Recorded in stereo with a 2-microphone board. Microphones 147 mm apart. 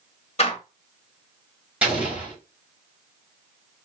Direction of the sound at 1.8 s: 10° right (ahead or behind).